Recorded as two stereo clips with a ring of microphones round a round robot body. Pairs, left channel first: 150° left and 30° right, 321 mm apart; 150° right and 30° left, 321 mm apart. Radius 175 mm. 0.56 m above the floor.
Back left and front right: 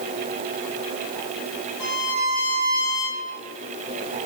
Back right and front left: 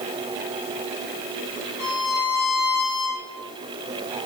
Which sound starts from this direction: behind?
A violin, at 1.8 s.